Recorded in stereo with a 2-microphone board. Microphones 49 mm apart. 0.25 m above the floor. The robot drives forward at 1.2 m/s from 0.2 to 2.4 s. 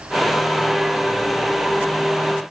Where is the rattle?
No rattle in this recording.